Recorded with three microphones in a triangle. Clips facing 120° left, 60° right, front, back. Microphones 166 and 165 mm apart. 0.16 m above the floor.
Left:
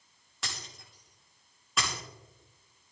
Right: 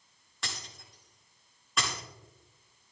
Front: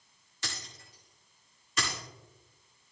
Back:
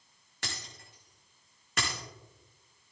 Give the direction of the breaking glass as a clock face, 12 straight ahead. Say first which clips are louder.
Even, even; 5 o'clock.